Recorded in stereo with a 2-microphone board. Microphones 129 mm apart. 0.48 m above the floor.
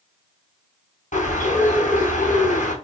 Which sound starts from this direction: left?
A bird, at 1.1 s.